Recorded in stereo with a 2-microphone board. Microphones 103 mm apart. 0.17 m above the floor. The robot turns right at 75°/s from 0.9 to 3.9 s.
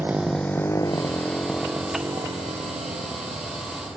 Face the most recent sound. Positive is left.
turn(degrees=-20)  # may be behind; listen again after turning